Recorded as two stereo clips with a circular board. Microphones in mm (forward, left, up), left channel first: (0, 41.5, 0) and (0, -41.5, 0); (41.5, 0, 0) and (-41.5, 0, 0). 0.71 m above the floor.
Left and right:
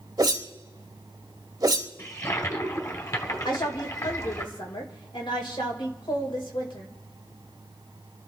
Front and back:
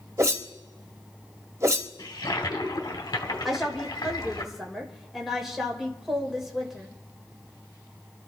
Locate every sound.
0.2 s a whoosh: 130° right, 1.2 m
2.0 s a toilet flushing: 40° left, 1.9 m
3.5 s a woman speaking: 95° left, 2.5 m